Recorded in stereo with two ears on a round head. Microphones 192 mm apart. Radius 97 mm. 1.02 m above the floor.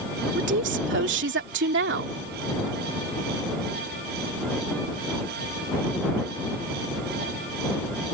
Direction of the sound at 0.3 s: 55° right (ahead or behind).